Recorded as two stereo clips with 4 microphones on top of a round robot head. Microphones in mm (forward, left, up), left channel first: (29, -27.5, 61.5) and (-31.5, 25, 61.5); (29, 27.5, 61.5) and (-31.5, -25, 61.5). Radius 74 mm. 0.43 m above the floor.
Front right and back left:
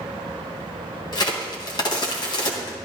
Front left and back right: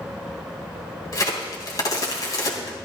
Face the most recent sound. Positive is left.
turn(degrees=-5)